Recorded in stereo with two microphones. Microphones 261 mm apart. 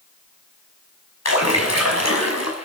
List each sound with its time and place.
1.2 s a splash: 75° left (ahead or behind), 6 m